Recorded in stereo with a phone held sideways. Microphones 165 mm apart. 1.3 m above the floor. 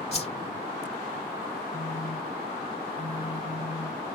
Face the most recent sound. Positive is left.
turn(degrees=65)  # may be behind; listen again after turning